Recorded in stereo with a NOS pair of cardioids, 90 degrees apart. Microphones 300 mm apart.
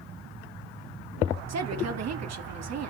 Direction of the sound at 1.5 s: 60° right.